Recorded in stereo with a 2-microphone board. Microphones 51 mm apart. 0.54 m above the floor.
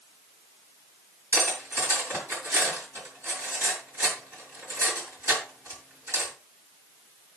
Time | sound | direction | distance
1.3 | cutlery clinking | 50° right (ahead or behind) | 6 m